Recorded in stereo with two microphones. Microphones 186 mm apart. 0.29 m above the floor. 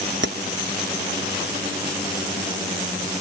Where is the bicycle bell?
No bicycle bell in this recording.